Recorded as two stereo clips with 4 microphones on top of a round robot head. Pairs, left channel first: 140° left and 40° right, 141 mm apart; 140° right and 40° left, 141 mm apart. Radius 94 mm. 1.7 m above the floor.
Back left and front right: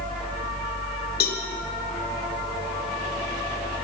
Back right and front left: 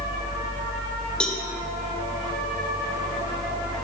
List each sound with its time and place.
1.2 s a cowbell: 135° left, 1.6 m